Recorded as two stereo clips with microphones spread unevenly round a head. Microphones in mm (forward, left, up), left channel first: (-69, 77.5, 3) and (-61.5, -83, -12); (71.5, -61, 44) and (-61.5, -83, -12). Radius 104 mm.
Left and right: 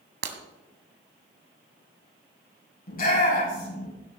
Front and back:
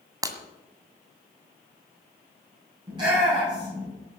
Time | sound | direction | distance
0.2 | breaking glass | 95° right | 2.0 m
2.9 | a shout | 125° left | 9.5 m